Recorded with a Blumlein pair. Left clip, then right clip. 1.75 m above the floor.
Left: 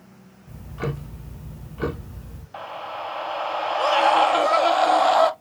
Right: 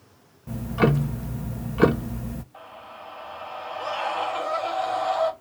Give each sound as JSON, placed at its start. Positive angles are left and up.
{"t": 0.5, "sound": "ticking", "azimuth_deg": -30, "distance_m": 0.9}
{"t": 2.5, "sound": "a scream", "azimuth_deg": 50, "distance_m": 1.1}